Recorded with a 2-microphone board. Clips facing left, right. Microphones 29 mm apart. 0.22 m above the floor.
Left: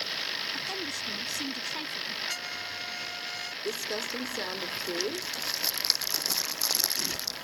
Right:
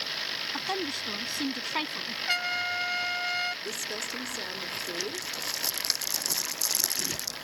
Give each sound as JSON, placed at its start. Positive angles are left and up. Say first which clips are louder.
{"t": 0.5, "sound": "a woman speaking", "louder": "right 2 dB", "side_deg": -35}
{"t": 2.3, "sound": "a trumpet", "louder": "right 7 dB", "side_deg": -45}
{"t": 3.6, "sound": "crumpling", "louder": "left 2 dB", "side_deg": 25}